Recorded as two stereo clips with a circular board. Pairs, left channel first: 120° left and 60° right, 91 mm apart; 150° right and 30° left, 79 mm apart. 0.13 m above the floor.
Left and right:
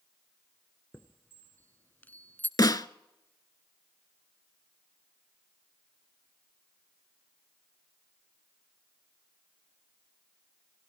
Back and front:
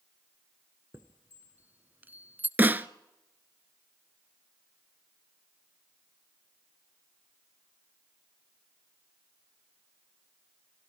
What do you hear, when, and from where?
0.9 s a chime: 70° left, 0.8 m
2.6 s a snare drum: 90° left, 0.6 m